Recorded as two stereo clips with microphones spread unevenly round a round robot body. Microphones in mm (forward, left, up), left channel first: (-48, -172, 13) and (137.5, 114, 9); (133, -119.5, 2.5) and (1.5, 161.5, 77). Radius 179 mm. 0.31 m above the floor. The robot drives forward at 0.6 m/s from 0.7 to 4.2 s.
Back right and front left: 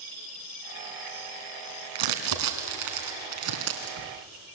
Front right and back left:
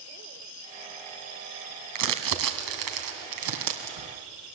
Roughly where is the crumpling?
Left.